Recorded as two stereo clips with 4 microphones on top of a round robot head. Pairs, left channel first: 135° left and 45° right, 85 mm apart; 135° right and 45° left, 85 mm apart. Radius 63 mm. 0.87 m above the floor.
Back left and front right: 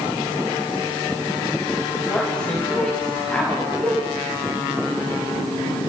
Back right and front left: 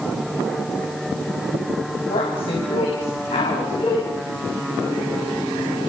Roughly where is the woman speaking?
Behind right.